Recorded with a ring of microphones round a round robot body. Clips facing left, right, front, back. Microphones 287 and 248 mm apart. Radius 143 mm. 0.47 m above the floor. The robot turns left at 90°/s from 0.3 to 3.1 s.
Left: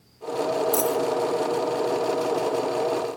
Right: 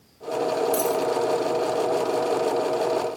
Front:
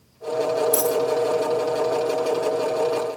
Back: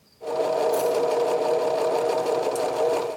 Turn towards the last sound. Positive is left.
turn(degrees=165)